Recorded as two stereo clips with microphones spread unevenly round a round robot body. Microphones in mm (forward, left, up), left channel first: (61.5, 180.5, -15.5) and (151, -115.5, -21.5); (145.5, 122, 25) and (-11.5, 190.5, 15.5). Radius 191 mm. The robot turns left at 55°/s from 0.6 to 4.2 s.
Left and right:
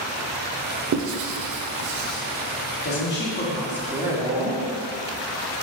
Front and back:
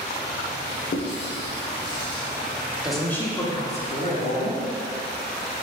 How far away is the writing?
About 0.5 m.